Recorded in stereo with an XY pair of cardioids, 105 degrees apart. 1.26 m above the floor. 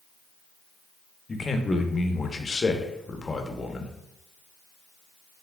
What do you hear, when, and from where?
1.3 s a man speaking: 30° left, 0.8 m